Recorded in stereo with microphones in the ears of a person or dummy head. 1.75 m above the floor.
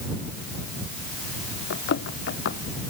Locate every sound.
1.7 s running footsteps: 55° left (ahead or behind)